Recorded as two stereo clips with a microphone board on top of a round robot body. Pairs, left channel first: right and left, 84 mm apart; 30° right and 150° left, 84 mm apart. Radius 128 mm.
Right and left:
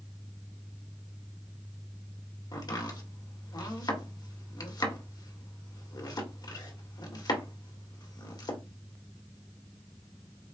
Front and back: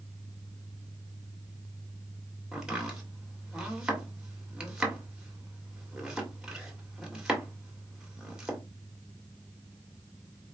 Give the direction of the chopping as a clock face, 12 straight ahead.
4 o'clock.